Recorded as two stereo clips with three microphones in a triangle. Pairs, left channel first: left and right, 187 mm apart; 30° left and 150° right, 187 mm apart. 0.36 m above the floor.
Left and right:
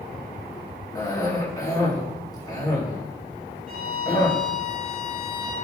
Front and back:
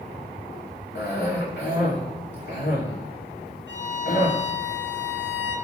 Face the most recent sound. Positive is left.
turn(degrees=-130)